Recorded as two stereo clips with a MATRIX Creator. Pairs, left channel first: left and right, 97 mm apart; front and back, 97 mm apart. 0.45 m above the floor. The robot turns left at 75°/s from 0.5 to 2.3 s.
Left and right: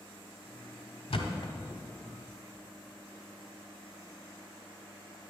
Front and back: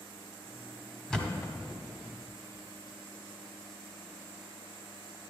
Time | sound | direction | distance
1.1 | a thud | 85° left | 1.1 m